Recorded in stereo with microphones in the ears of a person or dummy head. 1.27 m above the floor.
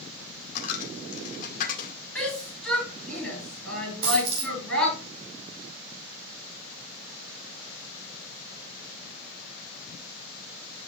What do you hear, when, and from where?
0.6 s a dropped coin: 50° left (ahead or behind), 1.9 m
2.1 s a shout: 5° left (ahead or behind), 6 m
4.0 s a dropped coin: 35° right (ahead or behind), 8 m